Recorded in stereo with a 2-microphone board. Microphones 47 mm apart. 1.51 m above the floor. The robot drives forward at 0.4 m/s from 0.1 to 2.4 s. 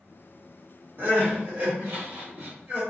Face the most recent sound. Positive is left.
turn(degrees=-45)  # may be behind; listen again after turning